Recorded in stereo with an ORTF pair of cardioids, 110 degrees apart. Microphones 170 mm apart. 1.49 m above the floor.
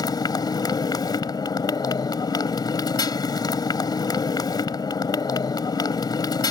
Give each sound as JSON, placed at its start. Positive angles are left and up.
{"t": 0.0, "sound": "a motorcycle", "azimuth_deg": 25}